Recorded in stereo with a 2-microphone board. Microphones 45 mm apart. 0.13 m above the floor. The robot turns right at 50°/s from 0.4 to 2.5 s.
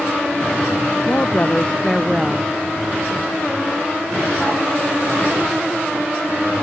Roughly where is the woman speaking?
Behind left.